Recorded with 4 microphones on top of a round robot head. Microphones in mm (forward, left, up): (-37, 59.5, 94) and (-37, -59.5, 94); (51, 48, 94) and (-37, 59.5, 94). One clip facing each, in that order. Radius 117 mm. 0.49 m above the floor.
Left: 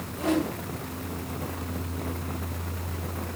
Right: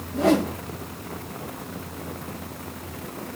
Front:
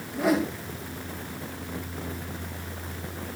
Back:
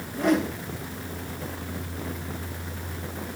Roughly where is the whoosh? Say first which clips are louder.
Right 6 dB, back 1 dB; right.